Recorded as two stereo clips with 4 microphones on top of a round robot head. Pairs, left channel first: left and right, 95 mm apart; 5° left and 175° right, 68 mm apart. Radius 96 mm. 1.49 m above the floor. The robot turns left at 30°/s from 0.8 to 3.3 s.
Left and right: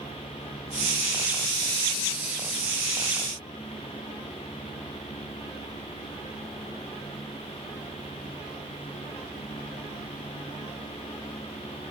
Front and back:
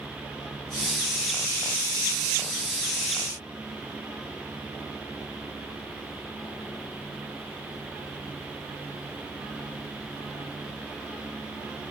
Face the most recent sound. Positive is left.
No sound to turn to.